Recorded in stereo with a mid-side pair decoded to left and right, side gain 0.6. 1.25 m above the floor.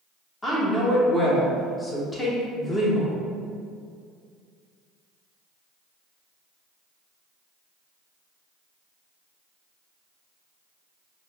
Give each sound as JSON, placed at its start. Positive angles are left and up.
{"t": 0.4, "sound": "a woman speaking", "azimuth_deg": 20, "distance_m": 1.1}